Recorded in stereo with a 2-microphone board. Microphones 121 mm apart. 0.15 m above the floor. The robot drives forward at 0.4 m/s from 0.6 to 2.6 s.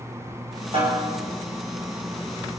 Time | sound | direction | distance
0.7 | a snare drum | 50° right (ahead or behind) | 6.5 m